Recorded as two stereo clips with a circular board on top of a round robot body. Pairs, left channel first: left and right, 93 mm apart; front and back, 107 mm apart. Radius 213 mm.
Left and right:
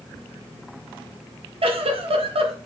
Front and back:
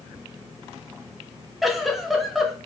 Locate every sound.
1.6 s a giggle: 90° right, 0.6 m